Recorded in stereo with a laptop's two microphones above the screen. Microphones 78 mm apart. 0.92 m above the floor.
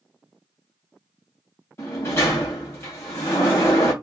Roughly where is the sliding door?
Left.